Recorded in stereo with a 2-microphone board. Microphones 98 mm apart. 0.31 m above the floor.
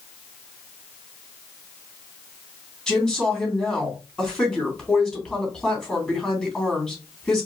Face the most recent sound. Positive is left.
turn(degrees=10)  # may be behind; listen again after turning